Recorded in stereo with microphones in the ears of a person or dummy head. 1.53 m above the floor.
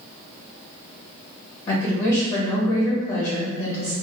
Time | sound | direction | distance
1.7 | a woman speaking | 45° left (ahead or behind) | 1.3 m